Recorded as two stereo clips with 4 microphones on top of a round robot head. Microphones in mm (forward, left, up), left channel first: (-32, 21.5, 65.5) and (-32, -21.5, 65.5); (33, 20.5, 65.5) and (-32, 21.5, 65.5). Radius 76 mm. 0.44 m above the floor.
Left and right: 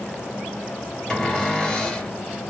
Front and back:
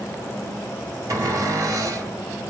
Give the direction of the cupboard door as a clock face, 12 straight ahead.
7 o'clock.